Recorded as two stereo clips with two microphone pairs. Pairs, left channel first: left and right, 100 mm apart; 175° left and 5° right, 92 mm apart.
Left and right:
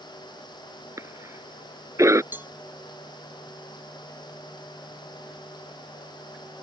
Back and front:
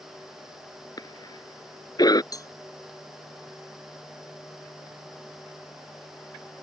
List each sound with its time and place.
1.0 s a cough: 145° right
2.3 s a cowbell: 155° right